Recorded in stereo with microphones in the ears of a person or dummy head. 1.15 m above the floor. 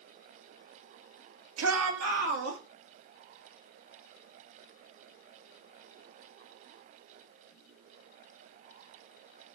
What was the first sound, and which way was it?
A shout, 80° right.